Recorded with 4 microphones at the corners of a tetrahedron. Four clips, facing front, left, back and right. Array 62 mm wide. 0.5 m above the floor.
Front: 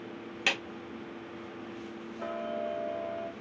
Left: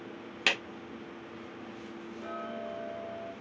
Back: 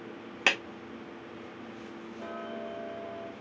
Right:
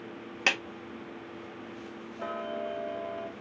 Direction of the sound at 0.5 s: 155° right.